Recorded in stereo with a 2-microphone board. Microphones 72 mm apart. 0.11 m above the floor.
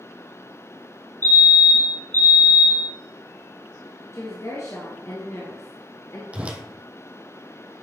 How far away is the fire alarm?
About 2.5 m.